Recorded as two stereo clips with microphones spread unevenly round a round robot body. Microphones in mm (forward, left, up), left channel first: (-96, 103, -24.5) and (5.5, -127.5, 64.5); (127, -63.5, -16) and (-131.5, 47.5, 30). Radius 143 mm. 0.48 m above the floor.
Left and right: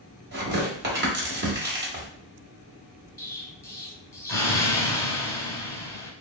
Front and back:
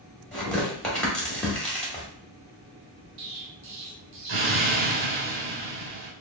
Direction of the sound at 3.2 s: 160° right.